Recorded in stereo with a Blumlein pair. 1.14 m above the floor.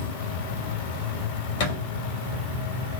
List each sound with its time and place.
0.0 s an insect: 60° left, 2 m
1.6 s a thud: 55° left, 1.9 m